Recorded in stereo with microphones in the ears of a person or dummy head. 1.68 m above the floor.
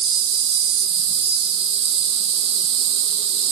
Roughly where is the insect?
Right.